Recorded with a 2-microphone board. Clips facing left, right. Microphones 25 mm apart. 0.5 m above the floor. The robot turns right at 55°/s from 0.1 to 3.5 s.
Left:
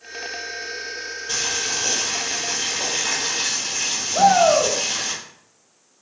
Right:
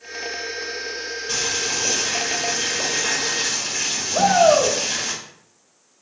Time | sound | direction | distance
1.3 | boiling | 160° right | 1.6 m
4.1 | a shout | 15° right (ahead or behind) | 1.1 m